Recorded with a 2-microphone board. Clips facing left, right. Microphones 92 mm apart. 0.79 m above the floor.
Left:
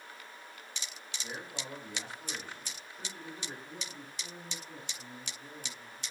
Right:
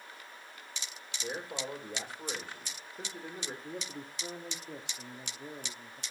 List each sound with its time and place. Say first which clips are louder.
1.2 s a man speaking: right 5 dB; 55° right (ahead or behind), 3 m
3.6 s a man speaking: right 4 dB; 65° right (ahead or behind), 1.6 m